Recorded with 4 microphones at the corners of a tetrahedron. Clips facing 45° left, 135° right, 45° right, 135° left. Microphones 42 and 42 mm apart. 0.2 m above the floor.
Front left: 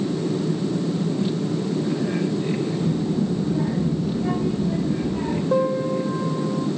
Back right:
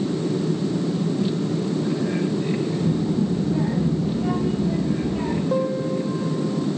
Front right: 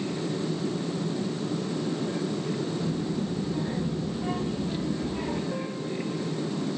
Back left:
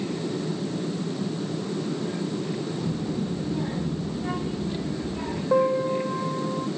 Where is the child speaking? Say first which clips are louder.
Back right 1 dB, back left 1 dB; 150° right, 4 m; by 5.4 s 115° right, 4 m.